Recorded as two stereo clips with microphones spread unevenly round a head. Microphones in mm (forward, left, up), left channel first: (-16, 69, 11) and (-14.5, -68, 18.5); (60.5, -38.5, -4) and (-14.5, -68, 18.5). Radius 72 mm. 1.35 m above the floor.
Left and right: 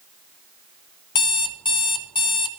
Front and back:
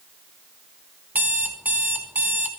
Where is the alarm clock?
145° left, 0.6 m.